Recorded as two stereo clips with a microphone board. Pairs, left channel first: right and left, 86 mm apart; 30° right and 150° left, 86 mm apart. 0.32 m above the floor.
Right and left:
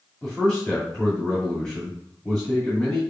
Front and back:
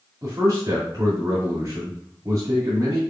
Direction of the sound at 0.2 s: 170° right.